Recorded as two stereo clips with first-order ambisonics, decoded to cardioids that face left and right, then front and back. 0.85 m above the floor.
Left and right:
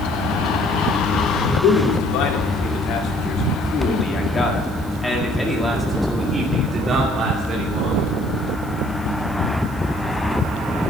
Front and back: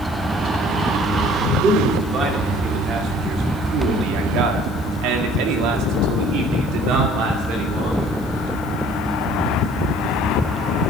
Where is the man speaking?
115° left, 2.5 m; by 8.2 s 145° right, 3 m.